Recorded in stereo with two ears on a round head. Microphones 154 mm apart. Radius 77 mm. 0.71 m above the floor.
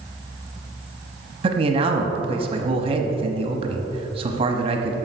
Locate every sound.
1.4 s a man speaking: 30° right (ahead or behind), 0.9 m